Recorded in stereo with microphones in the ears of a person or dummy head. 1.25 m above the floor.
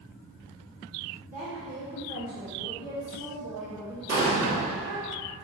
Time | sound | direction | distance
1.3 | a woman speaking | 40° right (ahead or behind) | 1.8 m
4.1 | an explosion | 60° right (ahead or behind) | 1.7 m